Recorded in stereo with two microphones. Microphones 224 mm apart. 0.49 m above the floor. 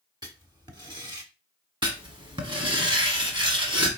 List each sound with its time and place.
0.2 s writing: 20° right (ahead or behind), 0.9 m
1.8 s writing: 20° right (ahead or behind), 1.1 m